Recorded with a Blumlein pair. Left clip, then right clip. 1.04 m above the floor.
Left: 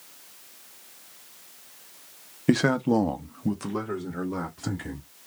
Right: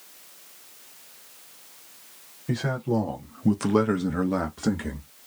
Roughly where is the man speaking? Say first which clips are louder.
Left 5 dB; ahead left.